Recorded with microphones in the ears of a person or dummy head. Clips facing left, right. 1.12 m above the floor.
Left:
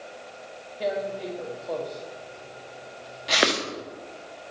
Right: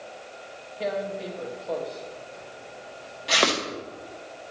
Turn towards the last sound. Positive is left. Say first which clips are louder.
# left 1 dB
turn(degrees=10)  # may be behind; listen again after turning